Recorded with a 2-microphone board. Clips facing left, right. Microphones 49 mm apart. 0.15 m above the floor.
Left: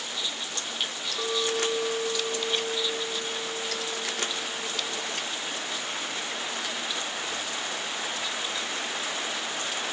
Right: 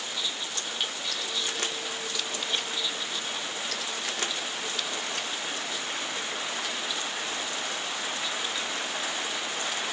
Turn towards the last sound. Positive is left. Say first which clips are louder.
# left 7 dB
turn(degrees=55)  # may be behind; listen again after turning